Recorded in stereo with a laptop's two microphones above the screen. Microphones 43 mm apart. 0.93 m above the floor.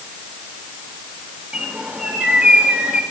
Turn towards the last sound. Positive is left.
turn(degrees=-30)  # may be behind; listen again after turning